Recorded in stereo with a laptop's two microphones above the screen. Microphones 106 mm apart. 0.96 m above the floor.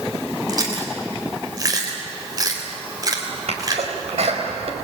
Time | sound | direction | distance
0.5 | chewing | 35° right (ahead or behind) | 3 m
3.5 | a sneeze | 65° right (ahead or behind) | 4.5 m